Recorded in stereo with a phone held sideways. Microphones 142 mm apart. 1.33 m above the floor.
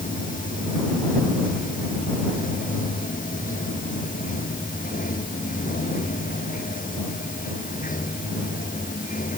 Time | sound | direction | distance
0.0 | running water | 75° left (ahead or behind) | ?